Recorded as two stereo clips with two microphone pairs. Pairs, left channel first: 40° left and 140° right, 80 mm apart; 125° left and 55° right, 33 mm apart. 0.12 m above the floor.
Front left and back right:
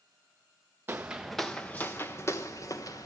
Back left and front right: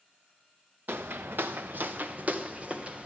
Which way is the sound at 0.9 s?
80° right.